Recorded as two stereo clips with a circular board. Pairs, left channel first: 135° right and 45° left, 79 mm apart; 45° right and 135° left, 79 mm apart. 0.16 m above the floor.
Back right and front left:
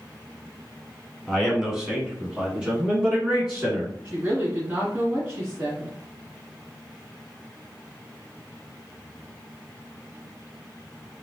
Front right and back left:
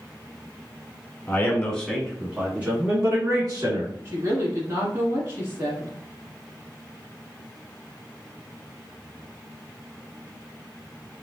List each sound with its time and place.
1.3 s a man speaking: 35° right, 1.2 m; by 3.9 s 120° left, 1.7 m
4.0 s a woman speaking: 100° left, 1.4 m